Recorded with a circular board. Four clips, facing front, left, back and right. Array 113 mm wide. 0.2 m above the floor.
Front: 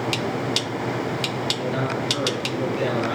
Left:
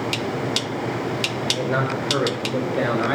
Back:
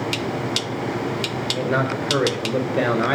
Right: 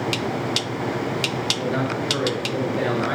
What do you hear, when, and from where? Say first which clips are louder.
1.5 s a man speaking: left 3 dB, back 5 dB; 150° left, 4.5 m; by 3.1 s 165° left, 5.5 m